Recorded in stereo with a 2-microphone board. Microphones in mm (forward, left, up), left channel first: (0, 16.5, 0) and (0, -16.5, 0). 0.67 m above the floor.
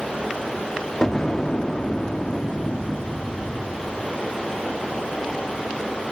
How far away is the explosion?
About 1.0 m.